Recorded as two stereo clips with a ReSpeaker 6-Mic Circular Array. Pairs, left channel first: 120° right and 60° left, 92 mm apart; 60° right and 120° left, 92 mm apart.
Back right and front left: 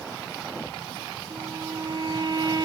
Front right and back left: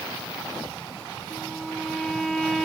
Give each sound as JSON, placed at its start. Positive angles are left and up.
{"t": 1.3, "sound": "a violin", "azimuth_deg": 25, "distance_m": 4.5}